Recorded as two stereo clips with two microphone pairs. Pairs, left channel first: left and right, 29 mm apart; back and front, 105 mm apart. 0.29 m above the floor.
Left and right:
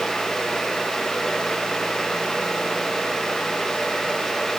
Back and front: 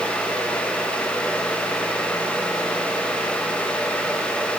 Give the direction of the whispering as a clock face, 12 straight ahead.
No whispering in this recording.